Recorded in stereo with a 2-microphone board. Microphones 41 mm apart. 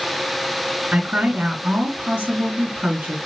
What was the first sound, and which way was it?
A woman speaking, 40° right (ahead or behind).